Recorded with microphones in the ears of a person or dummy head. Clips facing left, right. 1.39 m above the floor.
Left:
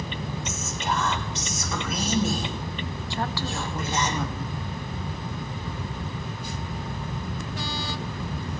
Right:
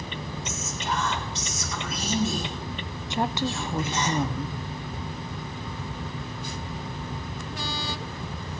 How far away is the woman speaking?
About 0.6 m.